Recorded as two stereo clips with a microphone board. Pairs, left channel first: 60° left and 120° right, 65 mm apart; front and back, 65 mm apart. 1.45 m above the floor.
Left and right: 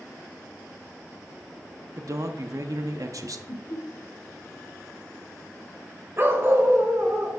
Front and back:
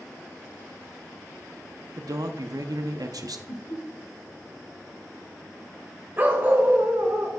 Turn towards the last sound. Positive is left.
turn(degrees=-140)